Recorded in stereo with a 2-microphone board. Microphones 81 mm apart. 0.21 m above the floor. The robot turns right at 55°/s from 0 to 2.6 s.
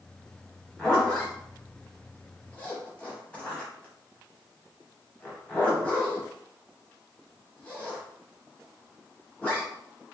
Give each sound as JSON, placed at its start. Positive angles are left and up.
{"t": 0.8, "sound": "a zipper", "side_deg": 5, "distance_m": 0.9}